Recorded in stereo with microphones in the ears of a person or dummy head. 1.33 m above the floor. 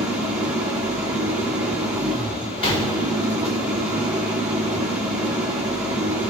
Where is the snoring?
No snoring in this recording.